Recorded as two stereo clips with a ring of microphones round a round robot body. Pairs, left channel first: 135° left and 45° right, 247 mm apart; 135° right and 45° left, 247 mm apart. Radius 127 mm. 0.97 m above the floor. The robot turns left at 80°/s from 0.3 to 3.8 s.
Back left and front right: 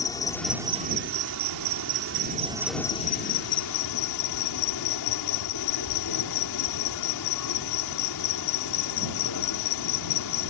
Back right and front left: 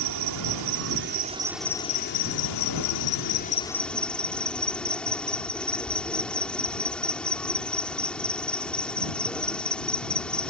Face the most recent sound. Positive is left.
turn(degrees=140)